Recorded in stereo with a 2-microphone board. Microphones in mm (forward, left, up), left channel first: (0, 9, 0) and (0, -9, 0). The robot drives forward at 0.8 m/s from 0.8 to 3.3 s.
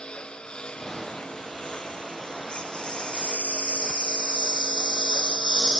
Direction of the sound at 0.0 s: 65° left (ahead or behind).